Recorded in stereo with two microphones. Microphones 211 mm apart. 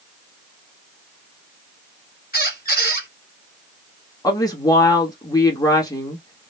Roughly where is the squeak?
Left.